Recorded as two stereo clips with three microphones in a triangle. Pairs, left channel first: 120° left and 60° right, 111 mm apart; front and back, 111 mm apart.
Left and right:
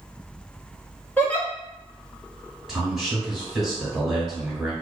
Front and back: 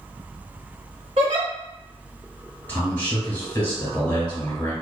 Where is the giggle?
165° right, 0.8 m.